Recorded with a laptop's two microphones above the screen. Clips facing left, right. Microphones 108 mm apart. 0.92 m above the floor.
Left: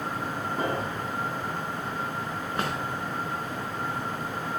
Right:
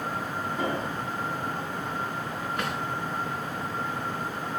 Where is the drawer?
35° left (ahead or behind), 5.5 m.